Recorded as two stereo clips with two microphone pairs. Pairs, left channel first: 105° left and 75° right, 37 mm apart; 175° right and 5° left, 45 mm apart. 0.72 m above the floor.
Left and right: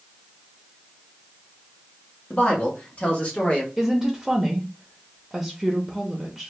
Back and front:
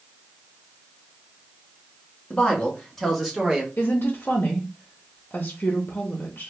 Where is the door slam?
I don't hear a door slam.